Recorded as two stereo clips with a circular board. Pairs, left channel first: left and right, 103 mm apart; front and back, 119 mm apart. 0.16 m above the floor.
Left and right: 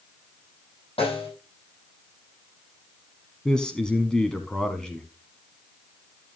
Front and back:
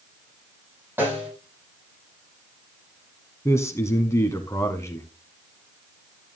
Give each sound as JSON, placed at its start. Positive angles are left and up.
{"t": 1.0, "sound": "a snare drum", "azimuth_deg": 110, "distance_m": 7.5}
{"t": 3.5, "sound": "a man speaking", "azimuth_deg": 15, "distance_m": 1.1}